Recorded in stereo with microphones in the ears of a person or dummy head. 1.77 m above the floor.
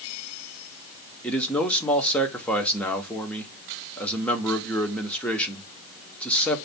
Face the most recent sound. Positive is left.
turn(degrees=10)  # may be behind; listen again after turning